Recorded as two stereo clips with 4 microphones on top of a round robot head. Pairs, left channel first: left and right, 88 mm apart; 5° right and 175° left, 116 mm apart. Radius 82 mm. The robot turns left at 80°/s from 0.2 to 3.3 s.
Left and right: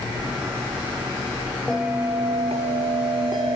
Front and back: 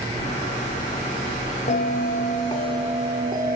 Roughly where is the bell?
Ahead.